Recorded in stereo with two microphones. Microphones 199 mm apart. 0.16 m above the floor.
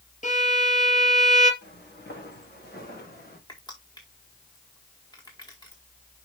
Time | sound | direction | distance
0.2 | a violin | 40° left (ahead or behind) | 2 m
1.6 | footsteps | 55° left (ahead or behind) | 6 m
3.5 | crushing | 20° left (ahead or behind) | 4.5 m